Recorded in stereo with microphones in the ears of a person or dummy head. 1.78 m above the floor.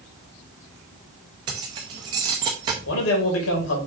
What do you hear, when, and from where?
1.5 s keys jangling: 20° right (ahead or behind), 0.6 m
2.9 s a man speaking: 80° left, 2.5 m